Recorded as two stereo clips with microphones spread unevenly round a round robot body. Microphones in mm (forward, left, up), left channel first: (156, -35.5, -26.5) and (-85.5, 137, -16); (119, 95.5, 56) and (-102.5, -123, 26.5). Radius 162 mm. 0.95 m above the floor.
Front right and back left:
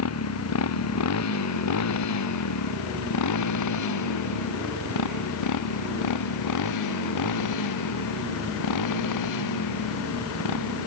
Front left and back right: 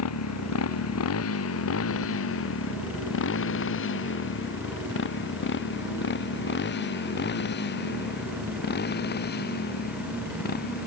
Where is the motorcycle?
Straight ahead; by 10.9 s 15° right.